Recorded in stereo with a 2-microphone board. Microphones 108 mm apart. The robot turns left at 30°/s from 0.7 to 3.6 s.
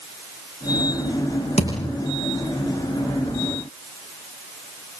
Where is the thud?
85° left, 7.5 m; by 1.9 s 75° left (ahead or behind), 7.5 m.